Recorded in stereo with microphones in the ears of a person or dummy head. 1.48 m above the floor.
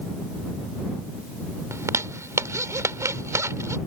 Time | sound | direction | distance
1.7 | a zipper | 15° right (ahead or behind) | ?